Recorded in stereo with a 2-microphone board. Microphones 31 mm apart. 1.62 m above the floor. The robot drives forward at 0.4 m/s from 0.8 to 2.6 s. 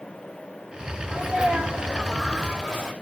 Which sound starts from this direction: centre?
A sneeze, at 1.1 s.